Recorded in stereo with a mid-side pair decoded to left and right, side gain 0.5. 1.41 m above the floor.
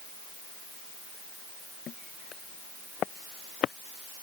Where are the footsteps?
50° left; by 3.8 s 60° left.